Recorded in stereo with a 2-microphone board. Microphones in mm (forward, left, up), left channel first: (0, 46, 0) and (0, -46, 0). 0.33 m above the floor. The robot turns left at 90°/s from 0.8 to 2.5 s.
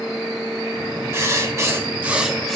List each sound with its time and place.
1.1 s writing: 60° right, 1.5 m; by 2.6 s 175° left, 1.5 m